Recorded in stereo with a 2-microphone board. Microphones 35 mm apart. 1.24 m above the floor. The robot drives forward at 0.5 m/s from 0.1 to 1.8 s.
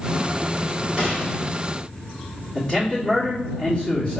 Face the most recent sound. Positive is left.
turn(degrees=5)  # may be behind; listen again after turning